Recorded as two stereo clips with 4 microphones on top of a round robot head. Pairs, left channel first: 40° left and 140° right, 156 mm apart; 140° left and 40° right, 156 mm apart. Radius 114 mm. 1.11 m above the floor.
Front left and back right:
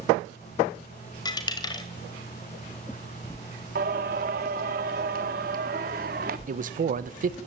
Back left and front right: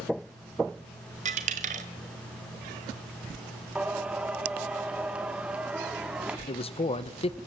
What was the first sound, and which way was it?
A dropped coin, 15° right.